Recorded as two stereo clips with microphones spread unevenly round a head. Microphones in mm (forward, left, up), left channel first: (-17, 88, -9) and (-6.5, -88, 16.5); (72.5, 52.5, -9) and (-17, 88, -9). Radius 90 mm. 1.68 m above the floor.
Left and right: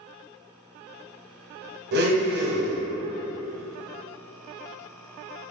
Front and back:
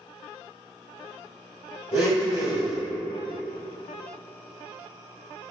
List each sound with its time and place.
1.9 s a blender: 120° right, 0.6 m